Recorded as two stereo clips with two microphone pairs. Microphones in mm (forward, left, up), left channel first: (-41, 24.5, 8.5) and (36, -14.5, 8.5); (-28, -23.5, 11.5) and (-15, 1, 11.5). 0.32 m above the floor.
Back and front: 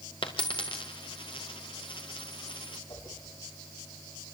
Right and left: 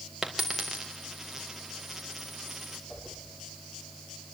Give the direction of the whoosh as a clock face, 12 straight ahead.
7 o'clock.